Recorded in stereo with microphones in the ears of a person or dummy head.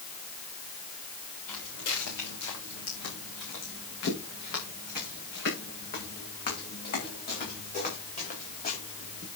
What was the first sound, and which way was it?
Footsteps, 70° left (ahead or behind).